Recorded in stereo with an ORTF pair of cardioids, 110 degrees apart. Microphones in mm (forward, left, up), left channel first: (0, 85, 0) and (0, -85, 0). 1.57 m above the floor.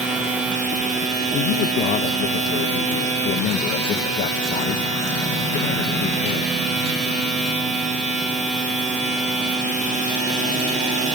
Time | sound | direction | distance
0.0 | a machine running | 45° right | 6 m
1.3 | a man speaking | 70° left | 0.9 m